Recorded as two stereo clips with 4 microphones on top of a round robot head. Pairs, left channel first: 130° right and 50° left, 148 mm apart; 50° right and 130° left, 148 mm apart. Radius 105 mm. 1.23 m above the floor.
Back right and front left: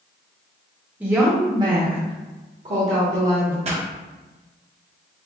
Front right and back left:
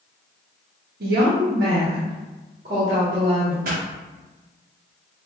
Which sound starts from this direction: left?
A pop, at 3.6 s.